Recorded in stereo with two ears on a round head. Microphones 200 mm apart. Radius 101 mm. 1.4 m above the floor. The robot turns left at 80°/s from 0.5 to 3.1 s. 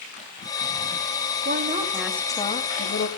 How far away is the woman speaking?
About 3 m.